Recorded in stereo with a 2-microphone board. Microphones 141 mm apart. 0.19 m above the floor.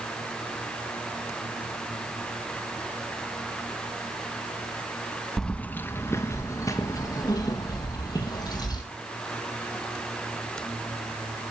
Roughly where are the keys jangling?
Centre.